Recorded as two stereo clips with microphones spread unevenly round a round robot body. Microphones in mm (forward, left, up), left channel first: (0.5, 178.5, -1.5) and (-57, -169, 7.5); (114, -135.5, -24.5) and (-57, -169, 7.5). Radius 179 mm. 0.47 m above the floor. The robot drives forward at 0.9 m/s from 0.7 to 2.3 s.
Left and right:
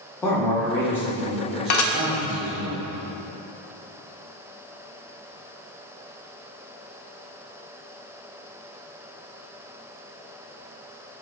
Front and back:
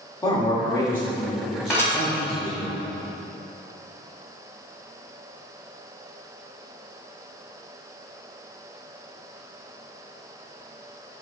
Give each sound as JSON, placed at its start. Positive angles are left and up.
{"t": 0.2, "sound": "a man speaking", "azimuth_deg": 5, "distance_m": 1.1}
{"t": 1.7, "sound": "dishes clattering", "azimuth_deg": 95, "distance_m": 0.5}